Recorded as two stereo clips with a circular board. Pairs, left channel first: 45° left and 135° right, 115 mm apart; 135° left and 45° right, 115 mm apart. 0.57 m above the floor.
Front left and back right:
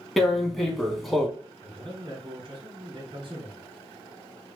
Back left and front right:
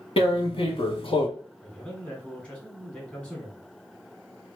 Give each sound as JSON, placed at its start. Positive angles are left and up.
{"t": 0.2, "sound": "tearing paper", "azimuth_deg": 135, "distance_m": 0.7}
{"t": 1.6, "sound": "a man speaking", "azimuth_deg": -150, "distance_m": 1.5}